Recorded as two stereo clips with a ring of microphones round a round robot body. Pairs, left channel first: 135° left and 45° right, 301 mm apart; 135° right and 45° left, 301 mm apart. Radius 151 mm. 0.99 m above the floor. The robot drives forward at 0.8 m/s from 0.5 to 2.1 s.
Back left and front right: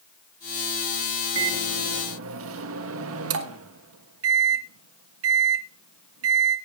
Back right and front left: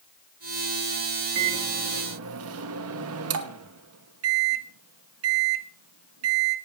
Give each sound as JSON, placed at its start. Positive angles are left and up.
{"t": 1.4, "sound": "a microwave", "azimuth_deg": 0, "distance_m": 1.9}